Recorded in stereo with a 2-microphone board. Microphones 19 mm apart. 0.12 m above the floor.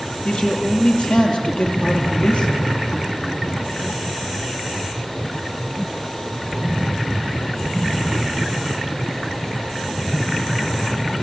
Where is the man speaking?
65° left (ahead or behind), 4 m.